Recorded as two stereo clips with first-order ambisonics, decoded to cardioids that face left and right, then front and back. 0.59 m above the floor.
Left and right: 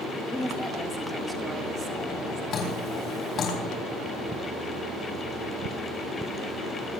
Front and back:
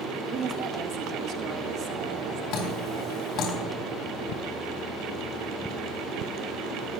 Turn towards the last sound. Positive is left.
turn(degrees=40)